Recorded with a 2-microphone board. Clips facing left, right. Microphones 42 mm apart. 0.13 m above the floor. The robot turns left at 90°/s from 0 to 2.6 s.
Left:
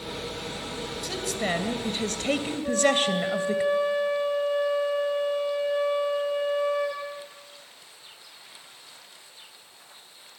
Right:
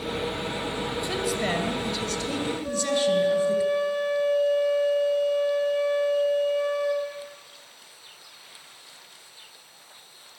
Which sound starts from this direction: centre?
A flute, at 2.6 s.